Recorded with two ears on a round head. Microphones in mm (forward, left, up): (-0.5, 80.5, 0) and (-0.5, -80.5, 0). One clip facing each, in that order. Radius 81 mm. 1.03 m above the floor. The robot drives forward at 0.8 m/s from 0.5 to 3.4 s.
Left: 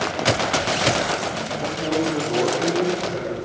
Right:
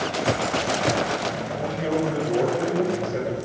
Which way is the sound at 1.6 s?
15° right (ahead or behind).